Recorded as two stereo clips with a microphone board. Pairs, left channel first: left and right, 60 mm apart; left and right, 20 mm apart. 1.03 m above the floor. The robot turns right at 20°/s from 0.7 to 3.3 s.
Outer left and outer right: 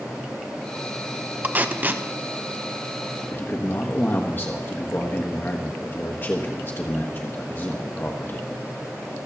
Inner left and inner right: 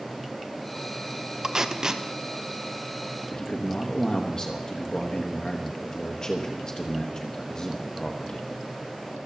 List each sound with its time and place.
1.4 s tape being pulled: 30° right (ahead or behind), 0.8 m; by 2.0 s 35° right (ahead or behind), 0.8 m
3.3 s a man speaking: 35° left (ahead or behind), 1.3 m